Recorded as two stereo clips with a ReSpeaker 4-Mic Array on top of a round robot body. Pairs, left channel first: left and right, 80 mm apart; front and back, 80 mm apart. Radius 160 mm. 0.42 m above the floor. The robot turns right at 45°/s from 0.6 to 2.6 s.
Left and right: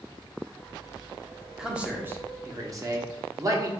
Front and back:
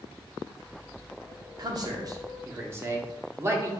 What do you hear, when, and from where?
1.6 s a man speaking: 170° right, 1.3 m; by 3.7 s 125° right, 1.3 m